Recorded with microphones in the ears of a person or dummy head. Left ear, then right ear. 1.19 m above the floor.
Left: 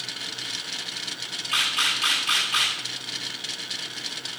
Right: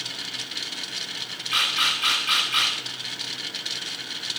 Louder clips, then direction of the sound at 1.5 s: Right 1 dB; 10° left (ahead or behind).